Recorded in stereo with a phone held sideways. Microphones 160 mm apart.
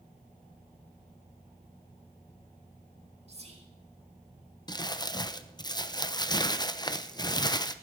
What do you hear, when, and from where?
3.3 s whispering: 40° right (ahead or behind), 1.7 m
4.7 s crumpling: 25° left (ahead or behind), 0.7 m